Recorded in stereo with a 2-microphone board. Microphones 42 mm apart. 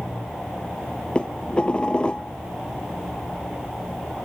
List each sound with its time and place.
1.1 s dishes clattering: 25° left (ahead or behind)